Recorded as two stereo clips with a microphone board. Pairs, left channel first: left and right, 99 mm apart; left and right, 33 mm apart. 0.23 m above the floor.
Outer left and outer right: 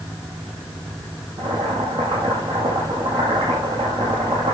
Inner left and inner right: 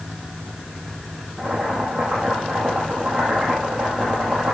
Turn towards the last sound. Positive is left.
turn(degrees=-50)  # may be behind; listen again after turning